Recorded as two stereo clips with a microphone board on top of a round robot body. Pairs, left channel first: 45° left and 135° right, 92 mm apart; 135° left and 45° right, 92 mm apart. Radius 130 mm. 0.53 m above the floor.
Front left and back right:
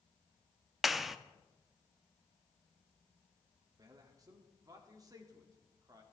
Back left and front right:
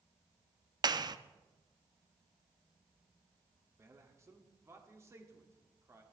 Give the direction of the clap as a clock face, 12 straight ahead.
2 o'clock.